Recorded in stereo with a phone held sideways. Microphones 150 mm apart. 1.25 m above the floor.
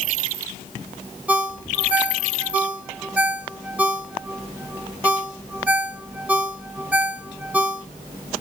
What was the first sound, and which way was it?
A ringtone, 10° right (ahead or behind).